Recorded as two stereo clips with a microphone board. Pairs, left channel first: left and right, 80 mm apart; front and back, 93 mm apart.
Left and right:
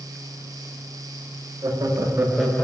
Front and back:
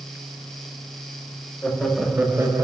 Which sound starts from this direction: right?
Laughter, at 1.6 s.